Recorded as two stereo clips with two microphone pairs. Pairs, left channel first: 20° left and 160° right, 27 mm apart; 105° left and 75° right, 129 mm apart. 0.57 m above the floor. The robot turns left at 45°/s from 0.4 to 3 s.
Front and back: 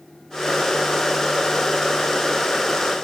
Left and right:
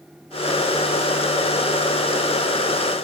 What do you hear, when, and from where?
Only background noise.